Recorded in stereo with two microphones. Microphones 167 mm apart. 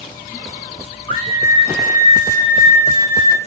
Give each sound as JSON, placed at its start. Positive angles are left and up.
{"t": 1.1, "sound": "a scream", "side_deg": 30, "distance_m": 5.5}